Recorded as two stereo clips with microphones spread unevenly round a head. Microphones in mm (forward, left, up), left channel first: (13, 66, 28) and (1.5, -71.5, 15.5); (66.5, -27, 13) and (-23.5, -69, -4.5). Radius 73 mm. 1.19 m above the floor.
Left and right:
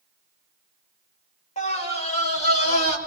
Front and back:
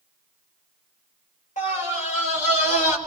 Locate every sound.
1.6 s a scream: 40° left, 6 m; by 3.0 s 45° left, 7.5 m